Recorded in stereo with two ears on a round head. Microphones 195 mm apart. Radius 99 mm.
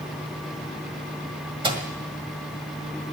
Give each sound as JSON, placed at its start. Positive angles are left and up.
{"t": 1.6, "sound": "a microwave", "side_deg": -25, "distance_m": 1.8}